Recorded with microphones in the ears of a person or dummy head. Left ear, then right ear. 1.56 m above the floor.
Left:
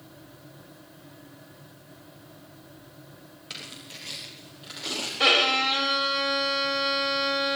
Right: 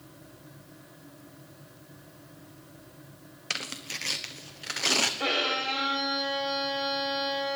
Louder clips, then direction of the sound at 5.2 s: Left 7 dB; 60° left (ahead or behind).